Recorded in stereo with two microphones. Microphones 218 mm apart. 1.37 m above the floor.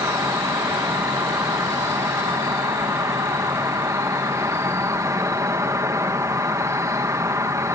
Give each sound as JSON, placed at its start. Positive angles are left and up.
{"t": 0.0, "sound": "an insect", "side_deg": -15}